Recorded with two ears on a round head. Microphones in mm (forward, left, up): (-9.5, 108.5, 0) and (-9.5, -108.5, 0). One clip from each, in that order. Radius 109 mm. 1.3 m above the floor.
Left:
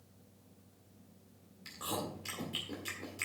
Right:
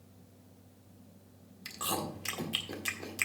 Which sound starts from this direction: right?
Chewing, at 1.6 s.